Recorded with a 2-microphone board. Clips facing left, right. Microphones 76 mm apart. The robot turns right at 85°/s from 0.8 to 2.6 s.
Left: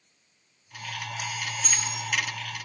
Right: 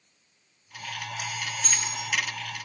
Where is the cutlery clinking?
65° right, 2.5 m; by 2.0 s 35° right, 2.5 m.